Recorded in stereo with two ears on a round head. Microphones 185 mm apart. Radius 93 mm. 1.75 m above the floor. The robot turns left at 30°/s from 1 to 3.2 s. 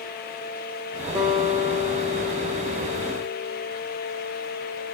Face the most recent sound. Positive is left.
turn(degrees=-120)